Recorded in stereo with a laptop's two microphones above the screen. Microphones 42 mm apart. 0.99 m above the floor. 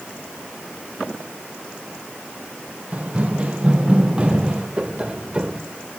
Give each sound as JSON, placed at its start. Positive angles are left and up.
{"t": 2.9, "sound": "running footsteps", "side_deg": -25, "distance_m": 4.5}
{"t": 4.8, "sound": "tapping", "side_deg": -30, "distance_m": 2.5}